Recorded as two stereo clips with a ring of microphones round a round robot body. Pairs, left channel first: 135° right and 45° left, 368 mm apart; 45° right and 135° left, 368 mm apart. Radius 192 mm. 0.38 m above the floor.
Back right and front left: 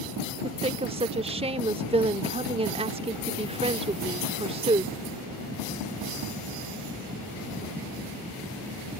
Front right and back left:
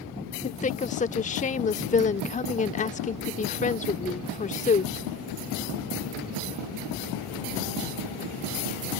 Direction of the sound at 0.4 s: 5° right.